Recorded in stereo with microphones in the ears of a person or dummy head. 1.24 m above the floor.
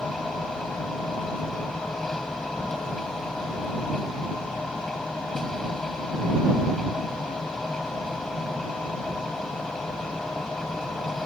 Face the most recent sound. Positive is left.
turn(degrees=5)  # may be behind; listen again after turning